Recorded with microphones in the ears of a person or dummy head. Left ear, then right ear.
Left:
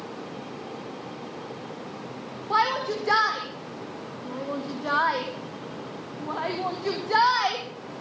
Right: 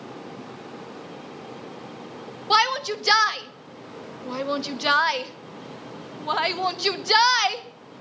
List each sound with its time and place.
2.5 s a shout: 65° right (ahead or behind), 1.1 m